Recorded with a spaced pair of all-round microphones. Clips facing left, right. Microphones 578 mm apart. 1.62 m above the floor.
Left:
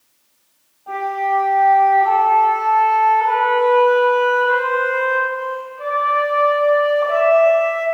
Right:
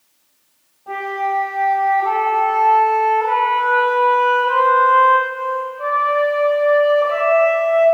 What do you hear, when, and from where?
0.9 s a flute: 50° right (ahead or behind), 6.5 m